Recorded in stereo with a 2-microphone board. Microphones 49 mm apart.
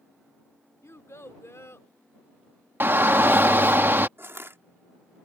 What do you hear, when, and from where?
0.8 s a child speaking: 70° left (ahead or behind)
2.8 s a shout: 45° right (ahead or behind)
4.2 s crushing: 55° right (ahead or behind)